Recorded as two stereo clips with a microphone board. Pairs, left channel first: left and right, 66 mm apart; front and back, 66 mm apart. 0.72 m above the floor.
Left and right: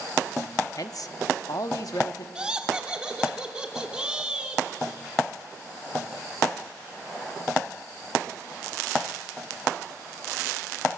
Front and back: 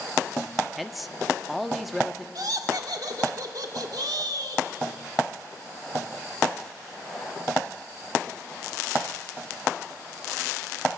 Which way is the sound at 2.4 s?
165° right.